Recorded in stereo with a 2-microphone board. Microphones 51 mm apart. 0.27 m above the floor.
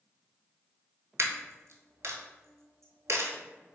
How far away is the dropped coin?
About 0.7 m.